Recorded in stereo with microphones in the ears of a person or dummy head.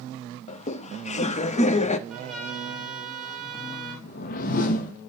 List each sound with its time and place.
0.5 s laughter: 30° left (ahead or behind), 0.6 m
2.1 s a trumpet: centre (ahead or behind), 5 m
4.0 s a whoosh: 55° left (ahead or behind), 1.0 m